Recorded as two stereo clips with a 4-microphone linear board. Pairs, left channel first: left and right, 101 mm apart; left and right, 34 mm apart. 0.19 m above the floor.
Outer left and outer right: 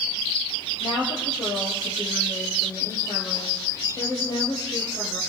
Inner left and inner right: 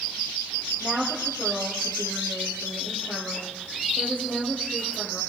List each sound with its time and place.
0.8 s a woman speaking: 40° left (ahead or behind), 6 m